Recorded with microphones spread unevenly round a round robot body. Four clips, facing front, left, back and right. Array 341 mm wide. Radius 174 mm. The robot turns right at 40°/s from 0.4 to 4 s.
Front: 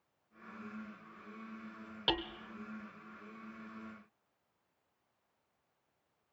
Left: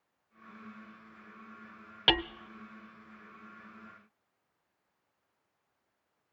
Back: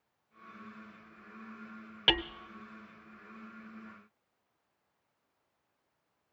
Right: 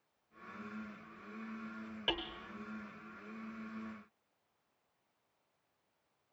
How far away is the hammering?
About 0.5 m.